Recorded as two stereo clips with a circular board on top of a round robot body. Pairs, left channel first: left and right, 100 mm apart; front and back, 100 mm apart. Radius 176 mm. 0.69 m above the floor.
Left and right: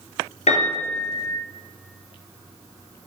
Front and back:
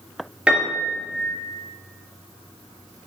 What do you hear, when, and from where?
0.5 s a piano: 100° left, 2.5 m